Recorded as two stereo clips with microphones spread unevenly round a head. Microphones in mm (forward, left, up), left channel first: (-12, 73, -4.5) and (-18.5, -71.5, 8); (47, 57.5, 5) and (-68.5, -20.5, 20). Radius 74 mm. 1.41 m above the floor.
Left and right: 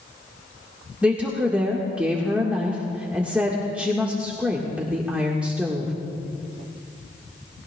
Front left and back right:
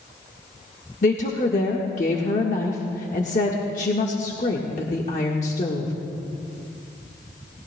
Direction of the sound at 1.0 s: 10° right.